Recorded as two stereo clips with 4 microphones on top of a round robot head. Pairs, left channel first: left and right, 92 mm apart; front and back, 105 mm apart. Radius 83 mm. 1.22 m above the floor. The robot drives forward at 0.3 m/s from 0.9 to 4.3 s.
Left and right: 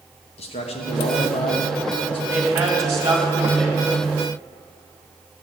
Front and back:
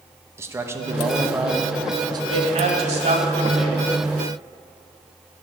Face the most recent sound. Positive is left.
turn(degrees=-160)